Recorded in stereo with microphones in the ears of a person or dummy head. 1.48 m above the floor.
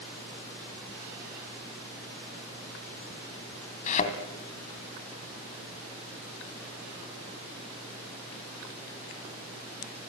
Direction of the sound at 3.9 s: 40° left (ahead or behind).